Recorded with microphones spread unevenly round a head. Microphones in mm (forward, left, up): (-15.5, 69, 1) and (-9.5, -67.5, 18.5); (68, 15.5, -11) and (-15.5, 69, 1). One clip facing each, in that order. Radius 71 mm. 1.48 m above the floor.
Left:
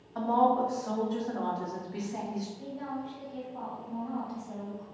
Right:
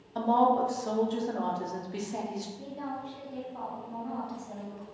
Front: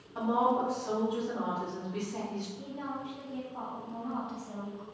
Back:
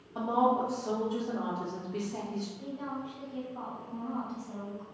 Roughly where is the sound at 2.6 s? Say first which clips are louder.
Even, back 1 dB; ahead right.